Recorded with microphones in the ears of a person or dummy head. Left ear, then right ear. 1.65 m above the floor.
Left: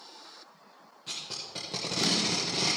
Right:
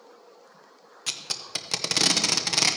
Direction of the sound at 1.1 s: 50° right (ahead or behind).